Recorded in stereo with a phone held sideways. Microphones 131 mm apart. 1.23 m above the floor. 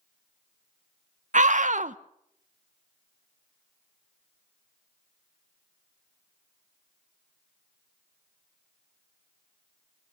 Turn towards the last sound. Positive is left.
turn(degrees=-65)  # may be behind; listen again after turning